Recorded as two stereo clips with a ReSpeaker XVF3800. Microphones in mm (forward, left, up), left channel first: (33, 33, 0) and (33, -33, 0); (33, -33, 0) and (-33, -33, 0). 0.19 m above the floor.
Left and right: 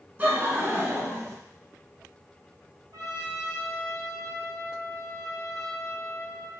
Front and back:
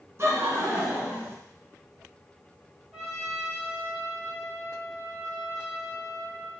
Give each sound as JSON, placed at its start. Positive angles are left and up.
{"t": 0.2, "sound": "laughter", "azimuth_deg": -145, "distance_m": 1.7}
{"t": 2.9, "sound": "a trumpet", "azimuth_deg": -100, "distance_m": 1.3}